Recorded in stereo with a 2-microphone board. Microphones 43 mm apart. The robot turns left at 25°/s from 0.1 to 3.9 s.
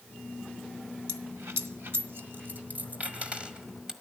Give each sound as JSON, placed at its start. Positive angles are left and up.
{"t": 1.1, "sound": "a dropped coin", "side_deg": -75, "distance_m": 1.2}